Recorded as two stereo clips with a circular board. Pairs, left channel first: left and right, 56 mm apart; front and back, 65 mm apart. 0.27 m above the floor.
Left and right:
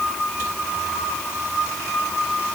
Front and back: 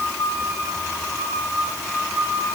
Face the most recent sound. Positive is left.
No sound to turn to.